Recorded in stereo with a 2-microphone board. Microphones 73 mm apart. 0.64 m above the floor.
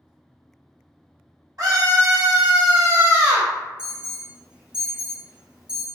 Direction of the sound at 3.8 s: 10° right (ahead or behind).